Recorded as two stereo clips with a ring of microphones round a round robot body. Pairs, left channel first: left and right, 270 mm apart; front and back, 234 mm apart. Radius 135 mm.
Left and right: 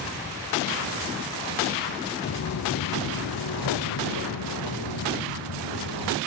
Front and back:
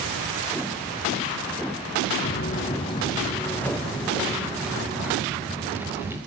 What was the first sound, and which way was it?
Footsteps, 45° left.